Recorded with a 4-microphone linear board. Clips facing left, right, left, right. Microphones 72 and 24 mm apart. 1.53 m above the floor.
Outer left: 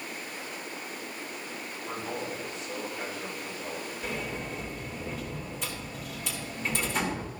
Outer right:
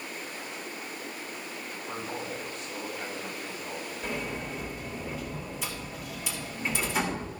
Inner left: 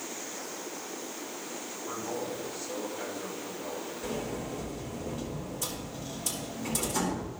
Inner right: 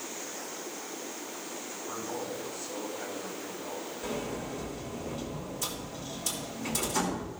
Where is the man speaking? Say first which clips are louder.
Outer left 1 dB, inner left 2 dB; 25° left (ahead or behind), 6.5 m.